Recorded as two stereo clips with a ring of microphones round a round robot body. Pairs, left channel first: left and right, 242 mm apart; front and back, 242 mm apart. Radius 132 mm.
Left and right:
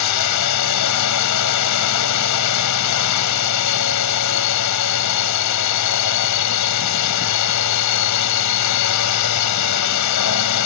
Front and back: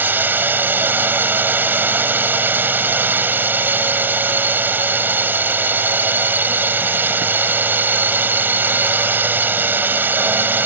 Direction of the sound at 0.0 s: 100° left.